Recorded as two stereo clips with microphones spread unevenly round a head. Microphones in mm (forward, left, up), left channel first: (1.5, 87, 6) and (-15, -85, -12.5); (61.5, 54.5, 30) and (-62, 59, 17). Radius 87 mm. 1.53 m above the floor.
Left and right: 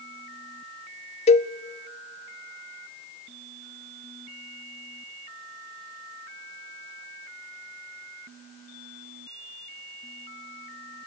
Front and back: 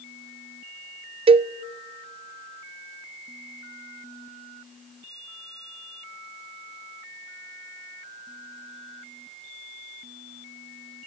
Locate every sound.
1.3 s a cowbell: 140° left, 0.5 m